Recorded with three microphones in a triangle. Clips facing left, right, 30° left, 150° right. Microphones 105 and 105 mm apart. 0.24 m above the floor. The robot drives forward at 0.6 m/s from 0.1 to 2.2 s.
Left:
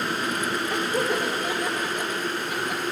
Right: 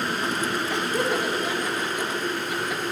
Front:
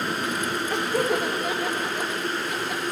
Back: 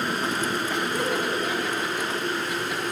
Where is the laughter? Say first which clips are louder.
Even, front 2 dB; 50° left, 4.5 m; by 2.8 s 60° left, 4 m.